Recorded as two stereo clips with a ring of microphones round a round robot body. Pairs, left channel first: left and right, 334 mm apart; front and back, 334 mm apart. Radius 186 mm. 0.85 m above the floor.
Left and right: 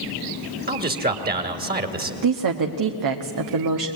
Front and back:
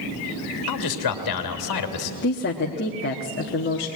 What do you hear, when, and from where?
0.7 s a man speaking: 30° right, 2 m
2.2 s a woman speaking: 60° right, 1.2 m